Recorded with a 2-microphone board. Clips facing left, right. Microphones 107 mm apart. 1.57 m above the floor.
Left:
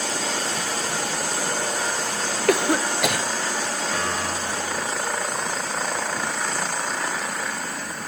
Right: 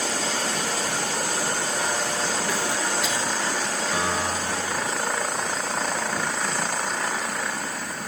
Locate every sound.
2.5 s a cough: 65° left (ahead or behind), 1.0 m
3.9 s a piano: 10° right (ahead or behind), 2 m